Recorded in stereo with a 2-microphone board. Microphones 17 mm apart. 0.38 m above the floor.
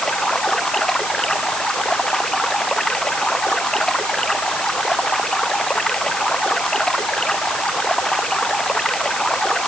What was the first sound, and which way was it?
Running water, 35° left (ahead or behind).